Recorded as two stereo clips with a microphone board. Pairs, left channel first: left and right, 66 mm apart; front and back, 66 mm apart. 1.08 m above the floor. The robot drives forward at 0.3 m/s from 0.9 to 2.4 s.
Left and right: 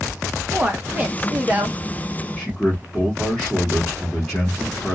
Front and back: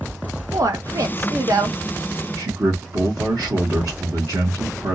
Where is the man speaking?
170° left, 1.5 m.